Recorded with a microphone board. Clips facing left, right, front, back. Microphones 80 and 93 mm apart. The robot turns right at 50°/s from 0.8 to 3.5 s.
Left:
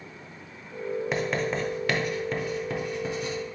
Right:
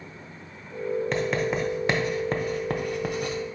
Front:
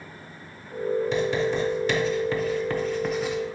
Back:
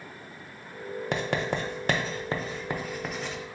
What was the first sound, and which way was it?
Writing, 170° left.